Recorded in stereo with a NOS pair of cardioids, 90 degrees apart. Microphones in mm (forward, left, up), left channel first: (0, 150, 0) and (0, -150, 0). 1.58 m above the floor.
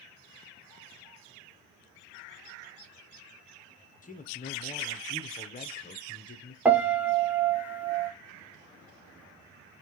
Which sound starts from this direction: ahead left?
A man speaking, at 4.0 s.